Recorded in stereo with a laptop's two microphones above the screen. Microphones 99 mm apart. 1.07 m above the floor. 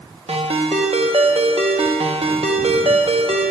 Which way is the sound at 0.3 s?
75° right (ahead or behind).